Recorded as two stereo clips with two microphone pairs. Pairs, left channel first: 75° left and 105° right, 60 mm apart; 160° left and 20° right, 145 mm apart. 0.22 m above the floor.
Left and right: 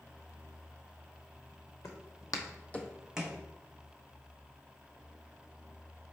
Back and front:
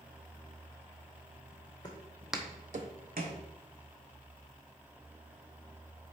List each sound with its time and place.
1.8 s footsteps: 100° left, 1.0 m; by 3.4 s 30° right, 1.2 m